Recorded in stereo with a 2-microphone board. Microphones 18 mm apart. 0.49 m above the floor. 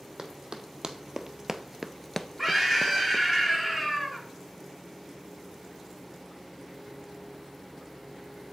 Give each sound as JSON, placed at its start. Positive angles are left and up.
{"t": 0.2, "sound": "running footsteps", "side_deg": -50, "distance_m": 1.3}
{"t": 2.4, "sound": "a scream", "side_deg": -5, "distance_m": 5.0}